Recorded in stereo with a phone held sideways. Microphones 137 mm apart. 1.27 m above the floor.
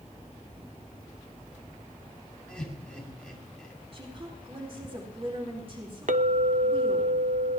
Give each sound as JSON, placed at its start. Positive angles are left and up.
{"t": 2.5, "sound": "laughter", "side_deg": 5, "distance_m": 7.0}
{"t": 3.9, "sound": "a woman speaking", "side_deg": -40, "distance_m": 4.5}
{"t": 6.1, "sound": "a clink", "side_deg": -65, "distance_m": 0.9}